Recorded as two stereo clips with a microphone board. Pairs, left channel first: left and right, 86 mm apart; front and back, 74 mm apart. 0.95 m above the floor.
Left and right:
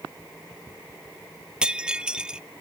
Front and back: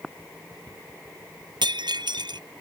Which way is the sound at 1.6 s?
170° right.